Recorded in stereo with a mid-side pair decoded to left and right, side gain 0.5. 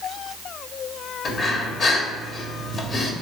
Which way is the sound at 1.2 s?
45° left.